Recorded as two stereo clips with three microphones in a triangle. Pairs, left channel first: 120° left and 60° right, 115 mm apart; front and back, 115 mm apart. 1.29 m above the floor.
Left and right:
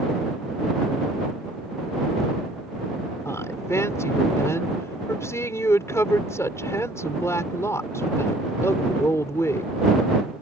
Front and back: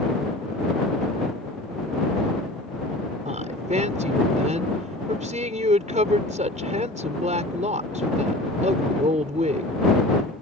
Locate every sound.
3.2 s a woman speaking: 175° right